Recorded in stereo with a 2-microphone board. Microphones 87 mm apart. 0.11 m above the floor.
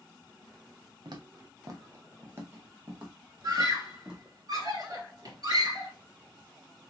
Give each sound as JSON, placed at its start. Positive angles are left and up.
{"t": 1.1, "sound": "footsteps", "side_deg": -60, "distance_m": 1.2}
{"t": 3.4, "sound": "a scream", "side_deg": -55, "distance_m": 2.5}